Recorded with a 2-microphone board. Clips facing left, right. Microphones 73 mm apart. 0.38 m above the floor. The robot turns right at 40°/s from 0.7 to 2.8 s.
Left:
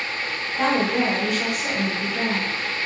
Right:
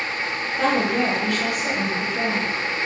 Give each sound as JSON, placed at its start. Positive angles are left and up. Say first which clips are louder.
{"t": 0.6, "sound": "a woman speaking", "louder": "even", "side_deg": 25, "distance_m": 1.1}